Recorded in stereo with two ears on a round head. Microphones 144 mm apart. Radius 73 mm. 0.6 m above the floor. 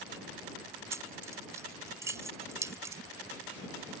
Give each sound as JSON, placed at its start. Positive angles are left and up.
{"t": 0.9, "sound": "keys jangling", "side_deg": -20}